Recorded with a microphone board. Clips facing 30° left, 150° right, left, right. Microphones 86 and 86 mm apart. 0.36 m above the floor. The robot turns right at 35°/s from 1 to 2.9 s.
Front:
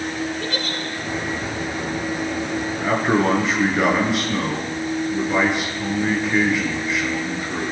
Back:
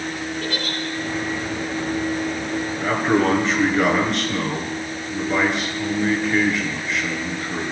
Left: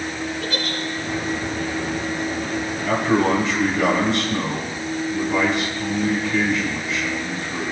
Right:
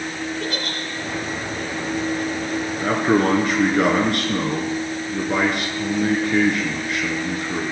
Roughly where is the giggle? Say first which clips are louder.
Even, left 1 dB; ahead right.